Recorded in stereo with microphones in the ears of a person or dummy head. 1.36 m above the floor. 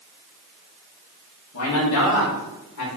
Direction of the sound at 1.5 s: 80° left.